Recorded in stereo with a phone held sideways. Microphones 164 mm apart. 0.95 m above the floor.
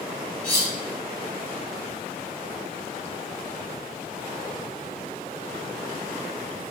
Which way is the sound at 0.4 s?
60° left (ahead or behind).